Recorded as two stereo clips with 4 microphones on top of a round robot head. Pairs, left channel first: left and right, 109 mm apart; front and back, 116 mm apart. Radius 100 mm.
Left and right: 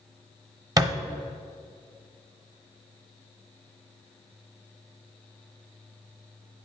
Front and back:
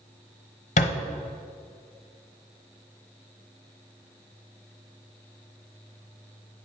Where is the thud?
30° right, 0.9 m.